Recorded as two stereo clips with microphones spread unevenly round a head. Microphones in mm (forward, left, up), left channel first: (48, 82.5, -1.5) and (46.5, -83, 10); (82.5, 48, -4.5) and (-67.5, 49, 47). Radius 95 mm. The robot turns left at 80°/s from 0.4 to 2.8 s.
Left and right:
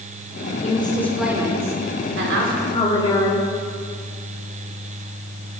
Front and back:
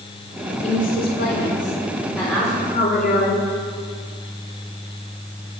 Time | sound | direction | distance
0.6 | a woman speaking | 45° left | 4 m
2.7 | a woman speaking | 30° left | 3 m